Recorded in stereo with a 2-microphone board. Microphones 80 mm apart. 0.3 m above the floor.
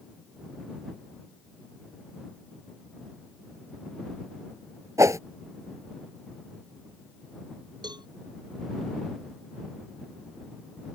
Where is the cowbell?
60° right (ahead or behind).